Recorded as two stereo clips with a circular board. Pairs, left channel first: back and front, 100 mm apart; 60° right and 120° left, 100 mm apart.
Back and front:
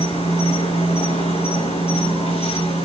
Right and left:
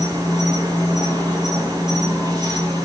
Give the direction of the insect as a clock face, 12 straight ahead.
6 o'clock.